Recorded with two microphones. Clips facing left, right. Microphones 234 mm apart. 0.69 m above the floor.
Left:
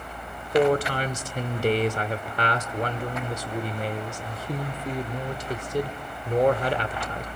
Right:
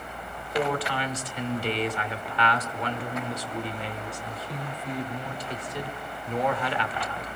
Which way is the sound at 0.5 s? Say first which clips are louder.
Left 7 dB; 45° left (ahead or behind).